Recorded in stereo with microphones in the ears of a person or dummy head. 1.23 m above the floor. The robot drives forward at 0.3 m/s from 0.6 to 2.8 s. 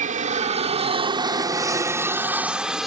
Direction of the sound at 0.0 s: 40° right (ahead or behind).